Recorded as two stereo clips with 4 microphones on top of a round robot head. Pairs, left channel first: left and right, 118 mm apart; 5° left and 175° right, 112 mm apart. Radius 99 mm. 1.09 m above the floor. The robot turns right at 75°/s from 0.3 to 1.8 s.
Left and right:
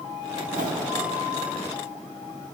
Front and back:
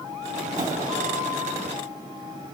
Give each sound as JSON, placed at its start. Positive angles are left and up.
{"t": 0.5, "sound": "a whoosh", "azimuth_deg": -125, "distance_m": 2.0}